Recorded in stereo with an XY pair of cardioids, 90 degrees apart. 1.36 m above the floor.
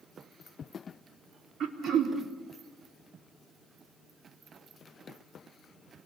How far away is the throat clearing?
About 3.5 m.